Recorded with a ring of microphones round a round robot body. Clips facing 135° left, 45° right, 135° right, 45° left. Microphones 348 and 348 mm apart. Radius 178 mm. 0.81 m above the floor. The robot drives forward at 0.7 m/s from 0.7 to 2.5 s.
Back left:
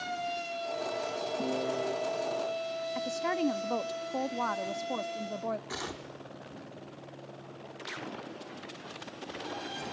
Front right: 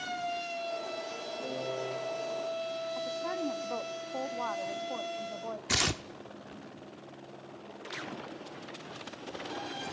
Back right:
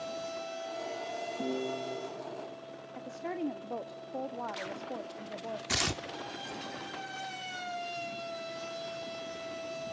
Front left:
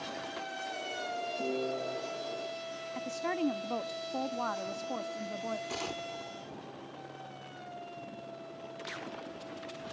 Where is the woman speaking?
100° left, 1.0 m.